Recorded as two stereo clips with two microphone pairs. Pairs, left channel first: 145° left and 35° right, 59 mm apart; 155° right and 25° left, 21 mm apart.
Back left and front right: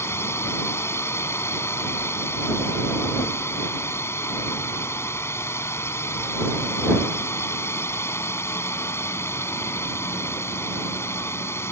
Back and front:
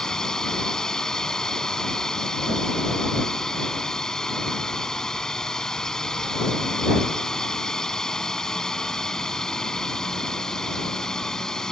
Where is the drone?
160° left.